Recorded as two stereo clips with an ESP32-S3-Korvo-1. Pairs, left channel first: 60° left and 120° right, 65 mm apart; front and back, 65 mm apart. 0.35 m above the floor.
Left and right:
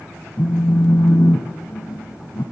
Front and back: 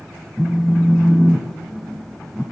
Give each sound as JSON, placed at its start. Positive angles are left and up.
{"t": 0.4, "sound": "a phone buzzing", "azimuth_deg": 65, "distance_m": 0.7}